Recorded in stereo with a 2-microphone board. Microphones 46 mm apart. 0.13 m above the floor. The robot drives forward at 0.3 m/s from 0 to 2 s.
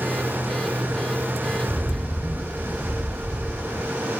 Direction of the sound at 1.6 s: 20° left (ahead or behind).